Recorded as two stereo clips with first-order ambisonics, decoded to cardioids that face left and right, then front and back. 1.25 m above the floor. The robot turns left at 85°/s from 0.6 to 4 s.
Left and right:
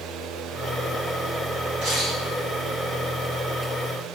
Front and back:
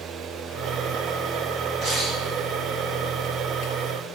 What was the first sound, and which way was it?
A camera shutter, 120° right.